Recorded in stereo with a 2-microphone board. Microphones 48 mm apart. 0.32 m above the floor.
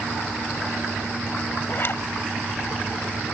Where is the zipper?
50° left (ahead or behind), 1.4 m.